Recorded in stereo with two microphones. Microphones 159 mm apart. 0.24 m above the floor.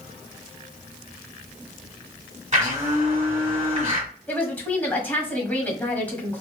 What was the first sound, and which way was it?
A blender, 45° right (ahead or behind).